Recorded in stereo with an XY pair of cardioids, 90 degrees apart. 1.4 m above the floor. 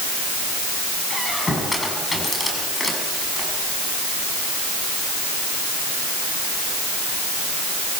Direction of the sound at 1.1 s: 20° left.